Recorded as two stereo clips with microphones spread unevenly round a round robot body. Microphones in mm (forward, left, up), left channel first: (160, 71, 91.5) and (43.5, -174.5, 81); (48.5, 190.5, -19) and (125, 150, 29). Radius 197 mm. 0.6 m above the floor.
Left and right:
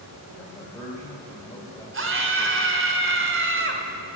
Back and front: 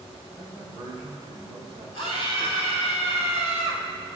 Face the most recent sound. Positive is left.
turn(degrees=-75)